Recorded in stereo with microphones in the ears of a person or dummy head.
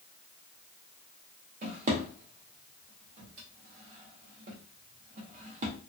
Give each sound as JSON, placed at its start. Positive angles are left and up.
{"t": 1.6, "sound": "a drawer", "side_deg": -40, "distance_m": 0.8}